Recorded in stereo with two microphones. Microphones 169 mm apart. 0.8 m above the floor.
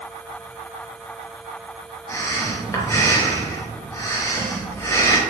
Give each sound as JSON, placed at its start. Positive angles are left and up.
{"t": 2.1, "sound": "breathing", "side_deg": 15, "distance_m": 0.8}